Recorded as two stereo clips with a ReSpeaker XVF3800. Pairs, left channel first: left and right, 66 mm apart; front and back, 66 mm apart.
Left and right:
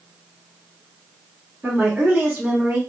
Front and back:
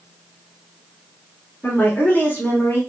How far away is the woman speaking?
About 1.2 m.